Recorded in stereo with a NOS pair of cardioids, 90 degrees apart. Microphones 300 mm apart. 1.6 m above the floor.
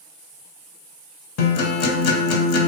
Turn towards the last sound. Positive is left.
turn(degrees=55)